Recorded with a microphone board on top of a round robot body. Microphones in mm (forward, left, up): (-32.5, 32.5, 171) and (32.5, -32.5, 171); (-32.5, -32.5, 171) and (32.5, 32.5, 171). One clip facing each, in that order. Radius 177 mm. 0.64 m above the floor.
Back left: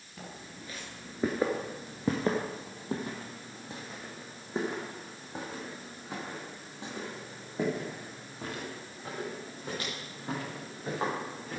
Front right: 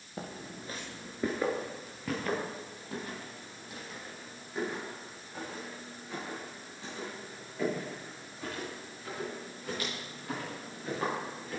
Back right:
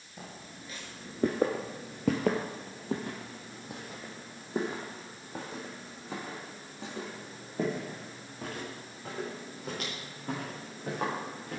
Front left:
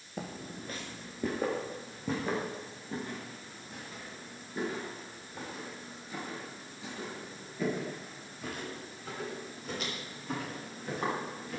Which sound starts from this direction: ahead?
Footsteps, at 0.2 s.